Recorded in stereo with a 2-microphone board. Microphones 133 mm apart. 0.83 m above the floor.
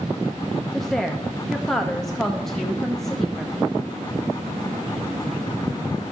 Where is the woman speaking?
5° left (ahead or behind), 0.6 m.